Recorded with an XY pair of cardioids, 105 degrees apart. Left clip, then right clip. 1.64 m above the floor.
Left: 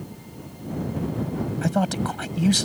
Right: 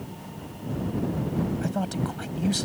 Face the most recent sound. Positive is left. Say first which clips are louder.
# left 5 dB
turn(degrees=40)